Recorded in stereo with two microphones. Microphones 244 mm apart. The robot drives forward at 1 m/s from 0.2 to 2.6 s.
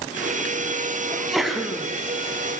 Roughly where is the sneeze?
Centre.